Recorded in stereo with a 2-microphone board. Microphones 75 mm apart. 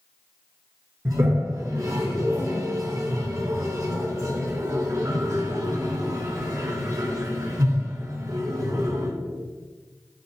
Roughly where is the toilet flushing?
Right.